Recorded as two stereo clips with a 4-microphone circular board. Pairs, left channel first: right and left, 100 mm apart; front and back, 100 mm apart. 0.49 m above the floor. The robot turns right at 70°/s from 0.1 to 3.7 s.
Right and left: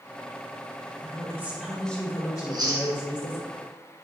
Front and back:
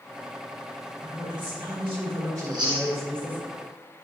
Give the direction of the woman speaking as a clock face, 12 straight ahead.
8 o'clock.